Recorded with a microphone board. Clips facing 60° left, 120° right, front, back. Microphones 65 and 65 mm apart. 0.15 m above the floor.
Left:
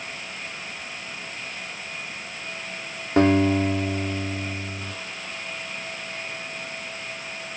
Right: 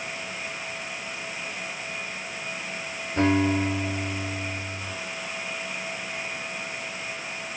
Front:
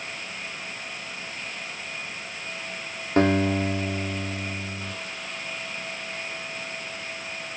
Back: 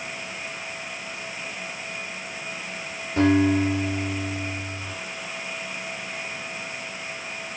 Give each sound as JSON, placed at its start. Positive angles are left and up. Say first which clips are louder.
{"t": 3.2, "sound": "a guitar", "louder": "left 4 dB, back 2 dB", "azimuth_deg": 35, "distance_m": 3.0}